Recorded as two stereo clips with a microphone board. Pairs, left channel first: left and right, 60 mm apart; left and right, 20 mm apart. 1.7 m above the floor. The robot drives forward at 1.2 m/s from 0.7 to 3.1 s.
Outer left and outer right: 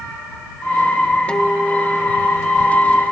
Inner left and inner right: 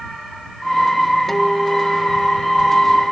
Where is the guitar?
20° left (ahead or behind), 1.4 m; by 3.0 s 10° left (ahead or behind), 2.5 m.